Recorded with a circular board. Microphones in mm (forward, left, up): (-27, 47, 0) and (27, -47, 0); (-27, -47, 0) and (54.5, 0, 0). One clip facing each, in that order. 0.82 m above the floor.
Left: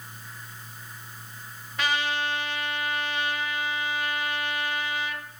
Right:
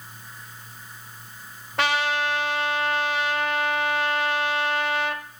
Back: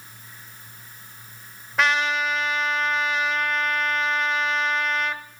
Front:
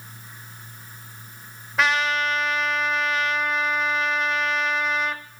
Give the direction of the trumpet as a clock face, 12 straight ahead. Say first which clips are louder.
Right 4 dB, even; 2 o'clock.